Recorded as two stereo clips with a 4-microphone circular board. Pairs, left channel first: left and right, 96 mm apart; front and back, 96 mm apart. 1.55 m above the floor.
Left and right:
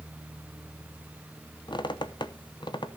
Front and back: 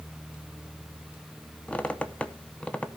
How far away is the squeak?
About 0.7 m.